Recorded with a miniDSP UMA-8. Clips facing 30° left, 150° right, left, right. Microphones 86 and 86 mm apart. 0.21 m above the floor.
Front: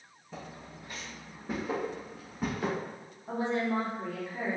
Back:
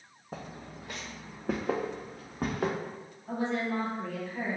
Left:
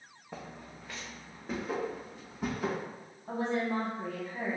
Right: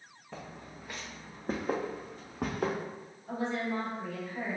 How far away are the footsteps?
About 0.8 m.